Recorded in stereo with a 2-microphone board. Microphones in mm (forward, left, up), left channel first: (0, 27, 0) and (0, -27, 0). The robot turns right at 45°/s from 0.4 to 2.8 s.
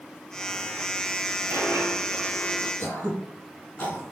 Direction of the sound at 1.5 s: 90° right.